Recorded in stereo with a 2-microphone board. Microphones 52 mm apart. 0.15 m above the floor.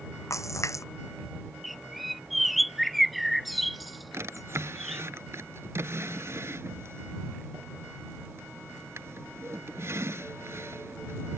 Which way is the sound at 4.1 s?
60° right (ahead or behind).